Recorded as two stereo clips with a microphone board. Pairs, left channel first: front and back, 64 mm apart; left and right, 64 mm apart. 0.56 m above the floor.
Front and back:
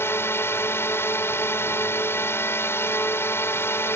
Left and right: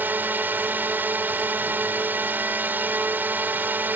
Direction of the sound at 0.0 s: 35° right.